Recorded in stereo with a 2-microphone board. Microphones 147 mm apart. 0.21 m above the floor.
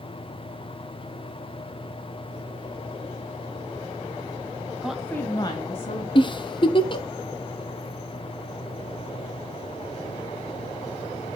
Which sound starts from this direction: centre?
A woman speaking, at 4.8 s.